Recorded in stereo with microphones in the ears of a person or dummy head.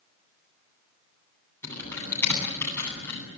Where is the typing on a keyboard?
15° left (ahead or behind), 9.5 m.